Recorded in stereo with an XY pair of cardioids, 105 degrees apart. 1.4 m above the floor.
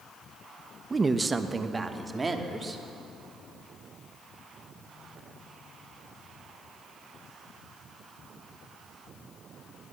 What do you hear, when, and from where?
0.9 s a woman speaking: 25° right, 1.1 m